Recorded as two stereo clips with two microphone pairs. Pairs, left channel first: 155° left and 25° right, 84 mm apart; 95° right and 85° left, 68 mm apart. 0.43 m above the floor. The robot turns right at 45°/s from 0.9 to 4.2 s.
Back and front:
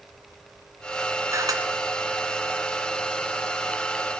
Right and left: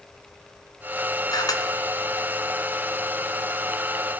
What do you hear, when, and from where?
1.3 s a camera shutter: 80° right, 1.4 m; by 1.6 s 65° right, 1.4 m